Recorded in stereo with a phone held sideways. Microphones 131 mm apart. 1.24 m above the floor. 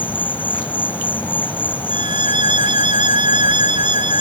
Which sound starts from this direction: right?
A violin, at 1.9 s.